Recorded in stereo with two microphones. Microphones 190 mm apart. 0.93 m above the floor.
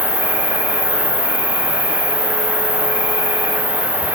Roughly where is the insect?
Right.